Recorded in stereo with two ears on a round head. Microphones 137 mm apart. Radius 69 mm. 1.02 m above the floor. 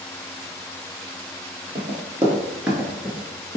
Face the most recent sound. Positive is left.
turn(degrees=20)  # may be behind; listen again after turning